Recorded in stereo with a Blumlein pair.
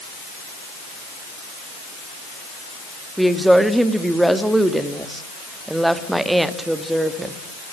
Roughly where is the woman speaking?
Ahead.